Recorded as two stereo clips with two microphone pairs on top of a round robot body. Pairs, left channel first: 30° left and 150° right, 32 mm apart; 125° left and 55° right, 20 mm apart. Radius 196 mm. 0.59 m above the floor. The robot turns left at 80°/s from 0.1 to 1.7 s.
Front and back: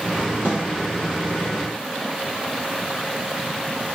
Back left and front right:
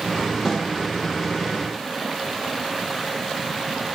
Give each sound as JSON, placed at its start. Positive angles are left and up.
{"t": 0.5, "sound": "a snare drum", "azimuth_deg": -150, "distance_m": 5.0}